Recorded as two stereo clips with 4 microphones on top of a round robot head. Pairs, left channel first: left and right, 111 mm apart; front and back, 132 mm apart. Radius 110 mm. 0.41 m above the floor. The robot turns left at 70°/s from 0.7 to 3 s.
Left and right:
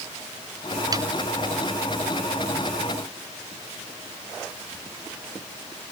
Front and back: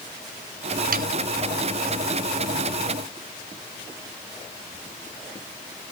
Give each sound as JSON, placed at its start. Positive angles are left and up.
{"t": 0.9, "sound": "sawing", "azimuth_deg": -155}